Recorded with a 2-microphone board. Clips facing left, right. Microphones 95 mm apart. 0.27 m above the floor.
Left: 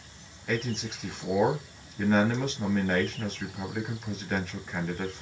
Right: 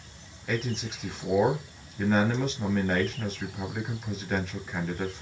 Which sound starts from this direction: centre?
A man speaking, at 0.5 s.